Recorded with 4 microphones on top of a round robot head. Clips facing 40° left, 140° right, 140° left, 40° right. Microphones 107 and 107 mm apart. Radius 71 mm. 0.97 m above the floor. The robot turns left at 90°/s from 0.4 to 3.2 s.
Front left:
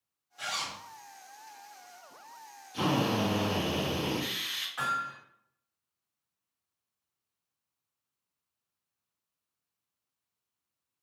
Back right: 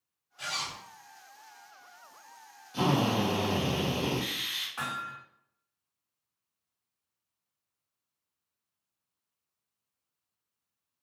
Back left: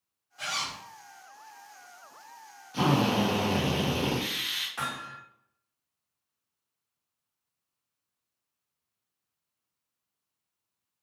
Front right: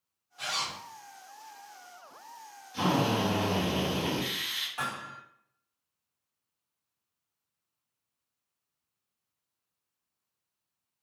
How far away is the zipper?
About 1.8 m.